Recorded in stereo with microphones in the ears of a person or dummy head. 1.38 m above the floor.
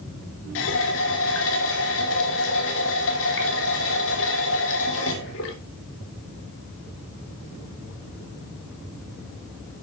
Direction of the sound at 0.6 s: 65° left (ahead or behind).